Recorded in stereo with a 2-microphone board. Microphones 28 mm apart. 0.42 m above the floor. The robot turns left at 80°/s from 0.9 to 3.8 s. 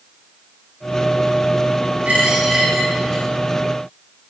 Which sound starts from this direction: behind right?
A dropped coin, at 2.0 s.